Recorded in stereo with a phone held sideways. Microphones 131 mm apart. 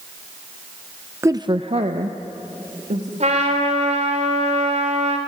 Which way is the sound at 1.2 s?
20° right (ahead or behind).